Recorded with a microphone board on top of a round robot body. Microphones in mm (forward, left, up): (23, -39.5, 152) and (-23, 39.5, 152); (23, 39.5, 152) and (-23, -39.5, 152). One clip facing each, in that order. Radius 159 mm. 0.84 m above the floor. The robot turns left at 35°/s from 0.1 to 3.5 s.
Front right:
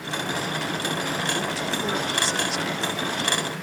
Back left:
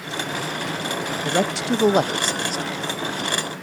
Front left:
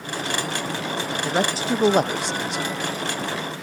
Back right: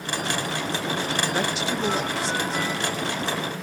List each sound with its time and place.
1.2 s a man speaking: 120° left, 0.7 m; by 2.6 s 70° left, 0.7 m